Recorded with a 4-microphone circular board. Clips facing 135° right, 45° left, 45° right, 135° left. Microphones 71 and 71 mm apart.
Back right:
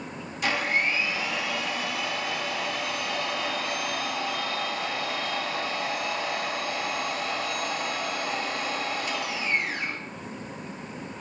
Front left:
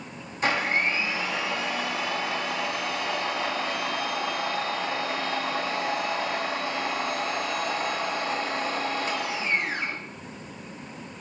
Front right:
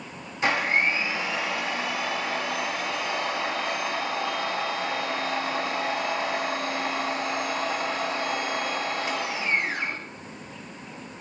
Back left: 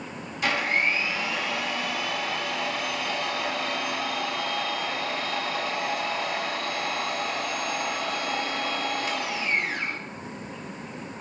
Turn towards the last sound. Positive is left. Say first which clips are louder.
# front left 1 dB, front right 2 dB
turn(degrees=10)